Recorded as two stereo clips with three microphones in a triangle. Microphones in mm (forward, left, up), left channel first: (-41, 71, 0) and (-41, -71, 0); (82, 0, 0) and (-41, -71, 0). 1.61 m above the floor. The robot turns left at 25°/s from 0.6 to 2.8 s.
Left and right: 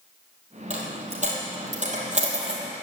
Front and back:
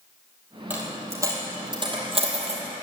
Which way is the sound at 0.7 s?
75° right.